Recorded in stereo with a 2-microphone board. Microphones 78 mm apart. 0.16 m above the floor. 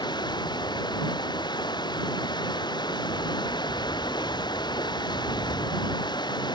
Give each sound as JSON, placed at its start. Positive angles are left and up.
{"t": 0.0, "sound": "running water", "side_deg": 60}